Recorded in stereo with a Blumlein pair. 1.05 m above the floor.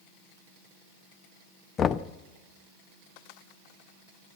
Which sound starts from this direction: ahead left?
Knocking, at 1.8 s.